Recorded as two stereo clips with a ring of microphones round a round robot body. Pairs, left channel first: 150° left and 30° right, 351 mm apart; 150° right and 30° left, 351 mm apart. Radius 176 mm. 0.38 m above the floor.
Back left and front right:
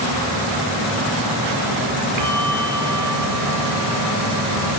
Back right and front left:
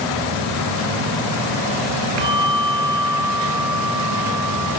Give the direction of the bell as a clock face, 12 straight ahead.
12 o'clock.